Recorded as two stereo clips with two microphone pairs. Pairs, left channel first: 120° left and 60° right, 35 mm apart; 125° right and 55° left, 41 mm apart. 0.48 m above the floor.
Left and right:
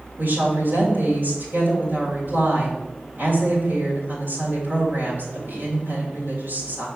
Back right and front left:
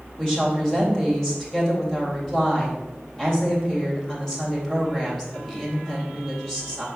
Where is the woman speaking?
50° right, 3 m.